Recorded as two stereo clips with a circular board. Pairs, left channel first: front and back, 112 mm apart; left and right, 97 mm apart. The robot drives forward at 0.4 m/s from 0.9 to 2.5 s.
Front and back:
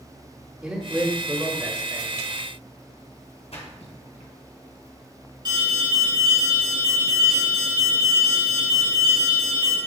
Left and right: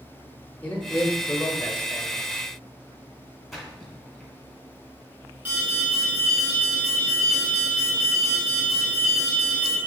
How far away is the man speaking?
About 1.0 m.